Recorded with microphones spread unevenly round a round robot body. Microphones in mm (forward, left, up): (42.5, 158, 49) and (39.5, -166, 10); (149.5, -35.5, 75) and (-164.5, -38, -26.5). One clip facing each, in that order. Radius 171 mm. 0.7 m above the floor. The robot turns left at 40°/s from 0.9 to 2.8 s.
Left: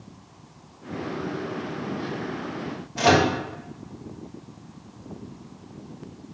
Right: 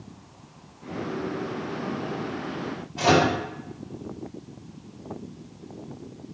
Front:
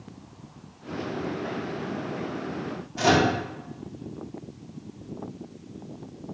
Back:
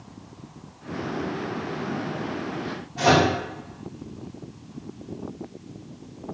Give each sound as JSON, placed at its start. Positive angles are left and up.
{"t": 3.0, "sound": "a microwave", "azimuth_deg": 80, "distance_m": 1.3}